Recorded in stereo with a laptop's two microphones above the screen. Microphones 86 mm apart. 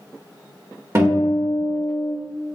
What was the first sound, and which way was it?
A guitar, 35° right (ahead or behind).